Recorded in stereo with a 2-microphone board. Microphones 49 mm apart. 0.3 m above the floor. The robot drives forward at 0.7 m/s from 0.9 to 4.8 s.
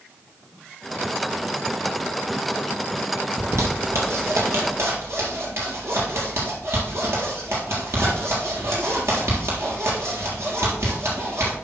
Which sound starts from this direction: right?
A zipper, at 3.4 s.